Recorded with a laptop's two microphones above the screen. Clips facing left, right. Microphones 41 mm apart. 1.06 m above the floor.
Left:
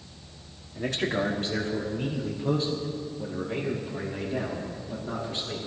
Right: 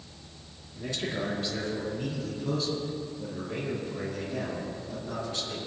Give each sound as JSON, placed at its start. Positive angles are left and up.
{"t": 0.8, "sound": "a man speaking", "side_deg": 70, "distance_m": 1.7}